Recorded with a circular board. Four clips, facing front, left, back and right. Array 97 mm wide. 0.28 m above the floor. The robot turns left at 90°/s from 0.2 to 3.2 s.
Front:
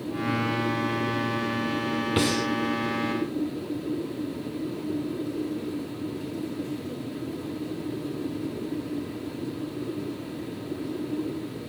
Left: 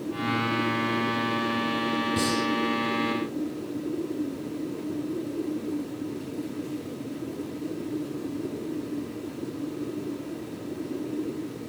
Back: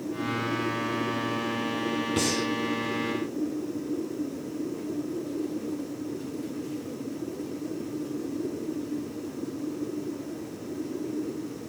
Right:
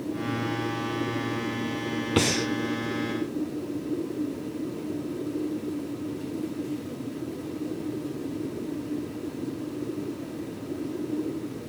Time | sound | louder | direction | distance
2.2 | breathing | right 1 dB, front 5 dB | 70° right | 0.7 m